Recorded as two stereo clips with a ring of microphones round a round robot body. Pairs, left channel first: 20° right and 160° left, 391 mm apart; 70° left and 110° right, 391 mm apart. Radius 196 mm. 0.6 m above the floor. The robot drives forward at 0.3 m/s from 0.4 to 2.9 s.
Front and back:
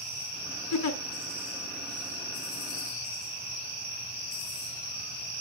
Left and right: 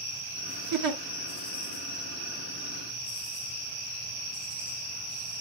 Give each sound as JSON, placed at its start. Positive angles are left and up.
{"t": 0.7, "sound": "a giggle", "azimuth_deg": -70, "distance_m": 1.1}